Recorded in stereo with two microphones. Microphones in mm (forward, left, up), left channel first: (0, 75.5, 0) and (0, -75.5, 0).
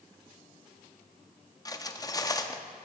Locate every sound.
1.6 s cutlery clinking: 25° left (ahead or behind), 0.6 m